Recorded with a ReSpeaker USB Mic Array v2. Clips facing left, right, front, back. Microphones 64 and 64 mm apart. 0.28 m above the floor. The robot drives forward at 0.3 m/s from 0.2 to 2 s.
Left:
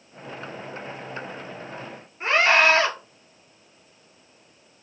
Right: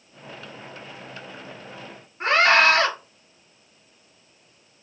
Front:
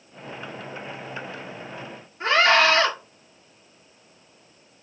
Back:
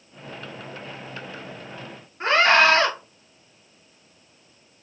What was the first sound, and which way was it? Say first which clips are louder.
A scream: right 1 dB, back 1 dB; 120° right.